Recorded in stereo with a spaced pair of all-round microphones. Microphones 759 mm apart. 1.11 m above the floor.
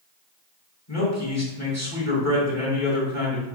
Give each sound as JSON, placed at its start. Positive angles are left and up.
{"t": 0.9, "sound": "a man speaking", "side_deg": 20, "distance_m": 1.6}